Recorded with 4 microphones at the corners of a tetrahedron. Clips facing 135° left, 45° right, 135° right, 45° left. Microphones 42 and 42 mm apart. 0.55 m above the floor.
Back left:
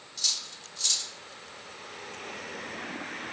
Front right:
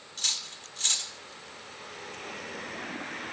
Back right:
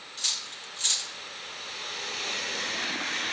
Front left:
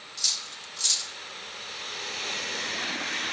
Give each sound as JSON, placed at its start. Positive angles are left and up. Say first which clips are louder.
{"t": 0.2, "sound": "cutlery clinking", "louder": "front right 1 dB, even", "azimuth_deg": -80, "distance_m": 0.7}